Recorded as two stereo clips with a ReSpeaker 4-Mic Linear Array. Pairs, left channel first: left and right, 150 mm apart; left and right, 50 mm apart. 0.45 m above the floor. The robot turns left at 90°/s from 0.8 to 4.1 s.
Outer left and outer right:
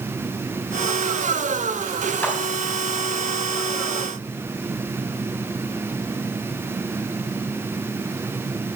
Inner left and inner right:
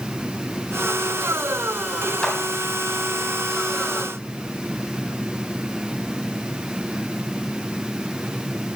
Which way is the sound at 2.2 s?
15° left (ahead or behind).